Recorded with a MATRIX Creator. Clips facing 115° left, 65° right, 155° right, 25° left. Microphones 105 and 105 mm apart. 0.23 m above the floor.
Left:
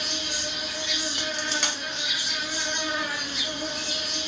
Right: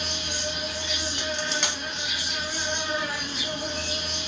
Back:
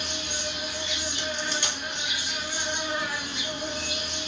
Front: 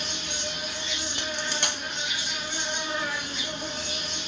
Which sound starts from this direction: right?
An insect, at 0.0 s.